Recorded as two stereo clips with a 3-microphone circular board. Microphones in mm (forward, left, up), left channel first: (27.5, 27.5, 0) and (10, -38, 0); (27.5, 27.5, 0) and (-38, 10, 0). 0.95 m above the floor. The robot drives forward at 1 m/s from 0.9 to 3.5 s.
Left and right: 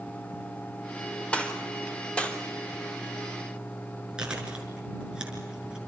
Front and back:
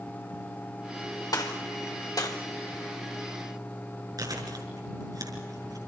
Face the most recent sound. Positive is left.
turn(degrees=180)